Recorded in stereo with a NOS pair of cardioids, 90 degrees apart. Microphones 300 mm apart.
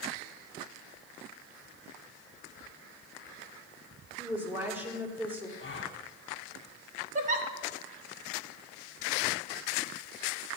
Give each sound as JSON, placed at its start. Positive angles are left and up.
{"t": 4.2, "sound": "a woman speaking", "azimuth_deg": -5, "distance_m": 3.0}
{"t": 5.6, "sound": "a gasp", "azimuth_deg": 40, "distance_m": 1.6}
{"t": 7.2, "sound": "a giggle", "azimuth_deg": -25, "distance_m": 1.5}